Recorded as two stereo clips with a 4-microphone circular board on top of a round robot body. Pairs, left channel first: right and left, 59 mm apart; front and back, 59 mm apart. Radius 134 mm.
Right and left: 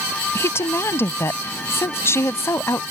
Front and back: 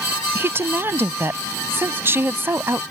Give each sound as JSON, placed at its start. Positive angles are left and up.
{"t": 0.3, "sound": "a woman speaking", "azimuth_deg": -130}